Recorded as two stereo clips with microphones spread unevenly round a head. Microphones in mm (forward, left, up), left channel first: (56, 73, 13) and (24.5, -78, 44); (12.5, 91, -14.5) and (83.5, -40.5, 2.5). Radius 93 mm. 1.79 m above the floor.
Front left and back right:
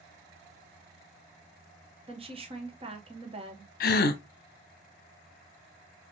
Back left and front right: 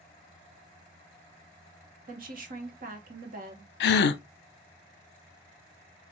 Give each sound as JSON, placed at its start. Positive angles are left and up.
{"t": 2.1, "sound": "a woman speaking", "azimuth_deg": -55, "distance_m": 1.3}
{"t": 3.8, "sound": "a gasp", "azimuth_deg": 115, "distance_m": 0.6}